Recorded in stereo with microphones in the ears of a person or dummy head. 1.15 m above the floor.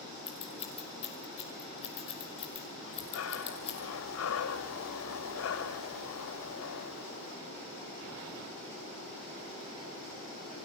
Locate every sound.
0.3 s scissors: 35° left (ahead or behind), 5.5 m
2.8 s breathing: 80° left, 2.5 m